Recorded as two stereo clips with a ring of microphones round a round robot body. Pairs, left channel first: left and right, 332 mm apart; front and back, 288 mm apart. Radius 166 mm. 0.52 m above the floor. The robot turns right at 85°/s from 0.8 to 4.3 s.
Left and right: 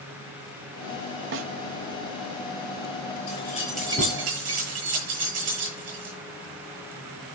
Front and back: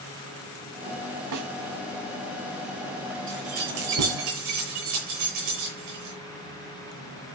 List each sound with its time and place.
1.3 s a snare drum: 145° right, 0.6 m; by 1.5 s 130° right, 0.6 m
3.3 s keys jangling: 135° left, 8.5 m; by 6.2 s 135° right, 8.5 m